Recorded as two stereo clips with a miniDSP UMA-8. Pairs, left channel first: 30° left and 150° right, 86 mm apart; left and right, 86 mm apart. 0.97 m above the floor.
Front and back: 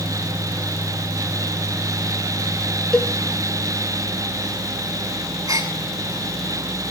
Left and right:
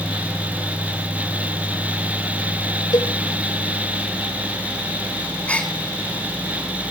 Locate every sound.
2.9 s a cowbell: 110° left, 1.6 m
5.5 s a gasp: 165° left, 3.5 m